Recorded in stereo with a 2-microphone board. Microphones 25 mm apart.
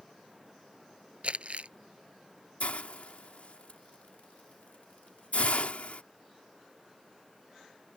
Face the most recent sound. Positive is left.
turn(degrees=70)  # may be behind; listen again after turning